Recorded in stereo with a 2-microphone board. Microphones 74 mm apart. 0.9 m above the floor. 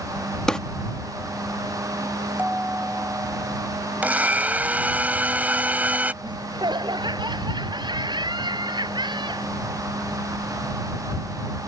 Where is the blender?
20° right (ahead or behind).